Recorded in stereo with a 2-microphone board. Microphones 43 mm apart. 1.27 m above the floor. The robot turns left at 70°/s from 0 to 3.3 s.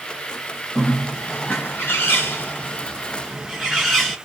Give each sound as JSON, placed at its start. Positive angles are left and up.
{"t": 0.8, "sound": "a bird", "azimuth_deg": -175, "distance_m": 1.3}